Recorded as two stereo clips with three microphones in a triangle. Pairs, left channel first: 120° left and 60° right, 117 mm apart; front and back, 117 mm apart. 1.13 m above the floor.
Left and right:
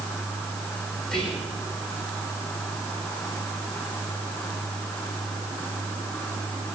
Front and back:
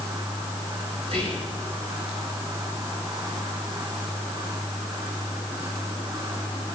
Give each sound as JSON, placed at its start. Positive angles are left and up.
{"t": 1.0, "sound": "whispering", "azimuth_deg": -155, "distance_m": 4.5}